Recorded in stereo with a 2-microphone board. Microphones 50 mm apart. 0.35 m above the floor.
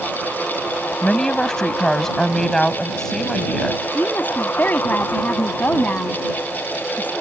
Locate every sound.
1.0 s a woman speaking: 10° left (ahead or behind)
4.0 s a woman speaking: 40° left (ahead or behind)